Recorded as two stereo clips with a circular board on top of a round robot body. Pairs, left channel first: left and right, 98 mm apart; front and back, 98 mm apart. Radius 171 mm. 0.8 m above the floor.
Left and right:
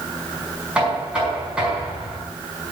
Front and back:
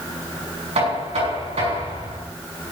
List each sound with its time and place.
0.8 s knocking: 170° right, 5 m